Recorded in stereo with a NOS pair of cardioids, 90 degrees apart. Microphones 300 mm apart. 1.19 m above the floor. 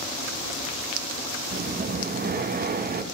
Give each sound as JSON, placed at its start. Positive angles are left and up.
{"t": 1.5, "sound": "breathing", "azimuth_deg": -30, "distance_m": 1.1}